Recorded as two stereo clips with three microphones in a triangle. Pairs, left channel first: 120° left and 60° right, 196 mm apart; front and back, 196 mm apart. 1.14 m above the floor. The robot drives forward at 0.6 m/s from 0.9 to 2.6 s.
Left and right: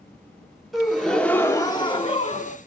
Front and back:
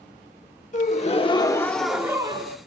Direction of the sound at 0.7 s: 30° left.